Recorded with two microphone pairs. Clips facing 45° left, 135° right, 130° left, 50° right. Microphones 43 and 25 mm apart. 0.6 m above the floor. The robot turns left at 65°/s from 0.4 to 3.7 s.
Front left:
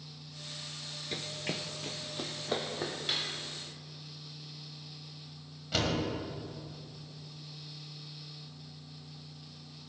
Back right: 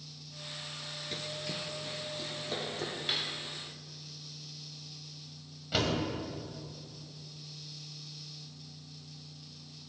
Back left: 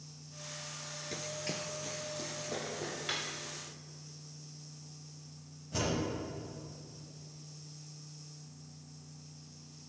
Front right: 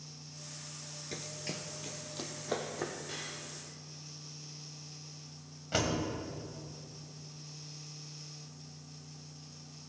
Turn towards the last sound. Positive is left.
turn(degrees=-50)